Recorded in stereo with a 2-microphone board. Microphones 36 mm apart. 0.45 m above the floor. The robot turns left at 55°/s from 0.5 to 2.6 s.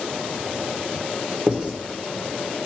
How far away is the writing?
About 1.1 m.